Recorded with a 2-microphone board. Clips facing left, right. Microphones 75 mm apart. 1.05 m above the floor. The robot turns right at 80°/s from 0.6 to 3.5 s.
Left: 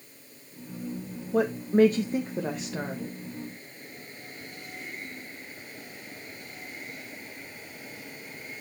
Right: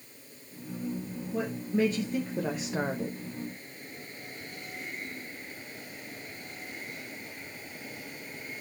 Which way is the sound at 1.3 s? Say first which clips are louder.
Left 7 dB; 80° left.